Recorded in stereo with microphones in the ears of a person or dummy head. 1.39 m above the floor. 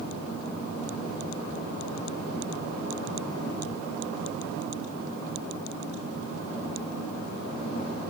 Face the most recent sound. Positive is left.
No sound to turn to.